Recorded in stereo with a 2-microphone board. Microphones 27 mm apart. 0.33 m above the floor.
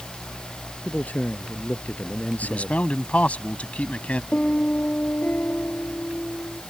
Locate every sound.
0.8 s a man speaking: 60° left (ahead or behind)
2.4 s a man speaking: 55° left (ahead or behind)
4.3 s a piano: 80° left